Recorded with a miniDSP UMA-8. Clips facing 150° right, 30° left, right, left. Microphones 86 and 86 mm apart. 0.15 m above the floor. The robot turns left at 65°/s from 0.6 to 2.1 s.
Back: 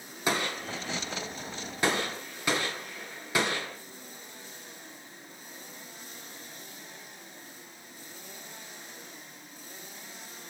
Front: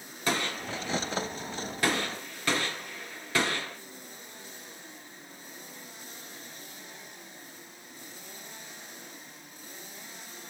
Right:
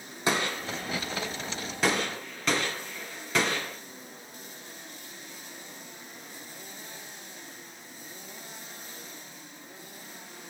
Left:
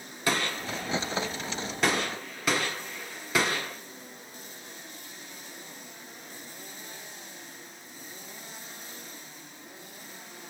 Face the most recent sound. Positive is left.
turn(degrees=165)